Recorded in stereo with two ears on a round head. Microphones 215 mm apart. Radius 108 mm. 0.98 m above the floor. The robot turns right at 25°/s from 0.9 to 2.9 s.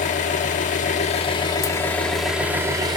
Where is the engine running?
145° left, 1.3 m; by 3.0 s 165° right, 1.3 m.